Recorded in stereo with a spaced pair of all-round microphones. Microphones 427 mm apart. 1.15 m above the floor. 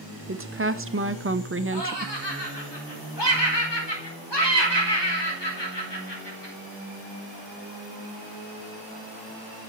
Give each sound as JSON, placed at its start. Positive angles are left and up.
{"t": 0.3, "sound": "a woman speaking", "side_deg": -30, "distance_m": 0.7}
{"t": 1.7, "sound": "laughter", "side_deg": 75, "distance_m": 4.5}